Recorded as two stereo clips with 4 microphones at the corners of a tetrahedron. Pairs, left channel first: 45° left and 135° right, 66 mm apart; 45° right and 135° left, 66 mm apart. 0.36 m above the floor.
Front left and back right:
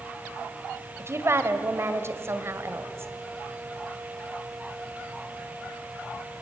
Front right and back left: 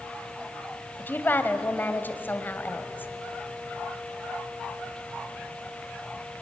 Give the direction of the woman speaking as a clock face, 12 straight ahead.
3 o'clock.